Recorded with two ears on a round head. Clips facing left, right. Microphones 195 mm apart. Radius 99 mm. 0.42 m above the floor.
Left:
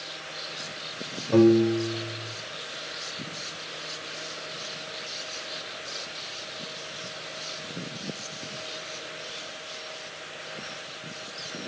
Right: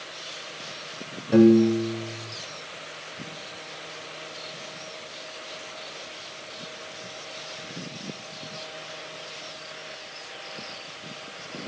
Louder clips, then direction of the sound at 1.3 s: Right 2 dB; 15° right (ahead or behind).